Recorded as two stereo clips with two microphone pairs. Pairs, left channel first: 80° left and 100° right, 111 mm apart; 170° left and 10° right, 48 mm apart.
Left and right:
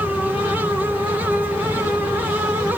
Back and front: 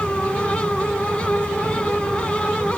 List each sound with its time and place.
Only background noise.